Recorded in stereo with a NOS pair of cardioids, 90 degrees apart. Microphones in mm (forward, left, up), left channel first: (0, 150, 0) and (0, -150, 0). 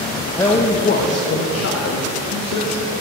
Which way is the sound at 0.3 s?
10° left.